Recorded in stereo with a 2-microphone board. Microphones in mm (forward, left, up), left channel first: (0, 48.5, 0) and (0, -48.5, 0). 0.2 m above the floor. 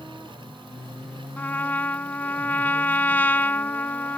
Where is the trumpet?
20° left (ahead or behind).